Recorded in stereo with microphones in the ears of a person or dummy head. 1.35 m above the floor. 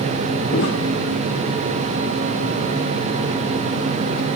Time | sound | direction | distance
0.5 | footsteps | 65° left (ahead or behind) | 3.5 m